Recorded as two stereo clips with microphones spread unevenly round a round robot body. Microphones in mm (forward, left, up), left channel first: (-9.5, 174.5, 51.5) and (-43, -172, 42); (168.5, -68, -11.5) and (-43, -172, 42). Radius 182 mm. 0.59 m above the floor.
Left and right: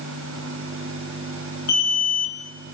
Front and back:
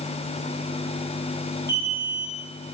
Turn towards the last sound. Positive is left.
turn(degrees=125)